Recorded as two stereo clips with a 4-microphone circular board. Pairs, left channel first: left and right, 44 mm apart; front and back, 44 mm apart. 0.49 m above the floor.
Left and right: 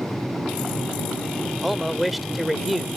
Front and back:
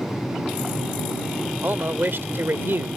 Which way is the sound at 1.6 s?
Straight behind.